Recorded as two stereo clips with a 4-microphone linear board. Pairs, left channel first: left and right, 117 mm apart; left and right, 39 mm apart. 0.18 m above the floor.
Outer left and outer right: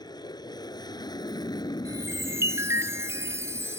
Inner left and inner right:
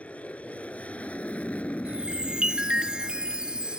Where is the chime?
25° right (ahead or behind).